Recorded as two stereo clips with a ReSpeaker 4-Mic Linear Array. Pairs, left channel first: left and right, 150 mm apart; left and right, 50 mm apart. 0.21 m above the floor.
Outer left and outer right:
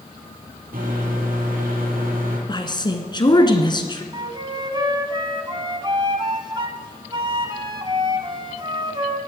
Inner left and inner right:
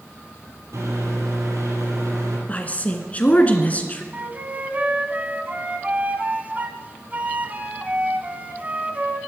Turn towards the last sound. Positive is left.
turn(degrees=-30)  # may be behind; listen again after turning